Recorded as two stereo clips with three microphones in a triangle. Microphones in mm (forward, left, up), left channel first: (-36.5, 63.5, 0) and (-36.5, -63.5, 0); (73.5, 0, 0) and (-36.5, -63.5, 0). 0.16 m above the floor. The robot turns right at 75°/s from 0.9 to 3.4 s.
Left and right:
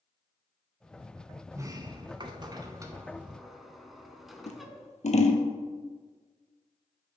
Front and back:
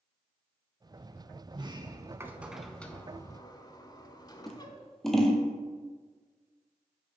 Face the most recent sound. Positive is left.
turn(degrees=120)